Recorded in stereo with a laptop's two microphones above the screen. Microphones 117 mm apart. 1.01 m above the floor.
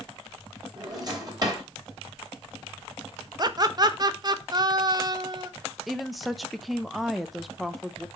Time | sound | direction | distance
0.8 | a drawer | 35° right (ahead or behind) | 3 m
3.4 | laughter | 35° right (ahead or behind) | 0.9 m
5.9 | a woman speaking | centre (ahead or behind) | 0.5 m